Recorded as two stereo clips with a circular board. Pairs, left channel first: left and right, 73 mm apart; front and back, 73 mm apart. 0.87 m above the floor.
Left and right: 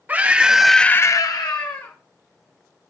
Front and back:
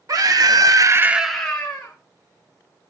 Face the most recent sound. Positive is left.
turn(degrees=65)